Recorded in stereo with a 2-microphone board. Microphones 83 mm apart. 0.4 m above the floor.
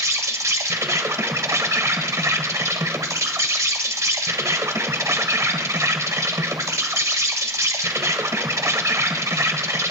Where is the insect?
40° right (ahead or behind), 0.8 m.